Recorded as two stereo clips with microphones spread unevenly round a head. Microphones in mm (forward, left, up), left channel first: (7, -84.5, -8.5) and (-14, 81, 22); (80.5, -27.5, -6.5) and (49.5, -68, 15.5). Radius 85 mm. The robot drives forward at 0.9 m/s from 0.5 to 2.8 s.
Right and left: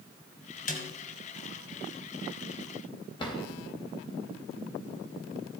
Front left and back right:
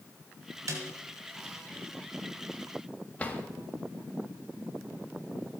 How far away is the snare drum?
About 2 m.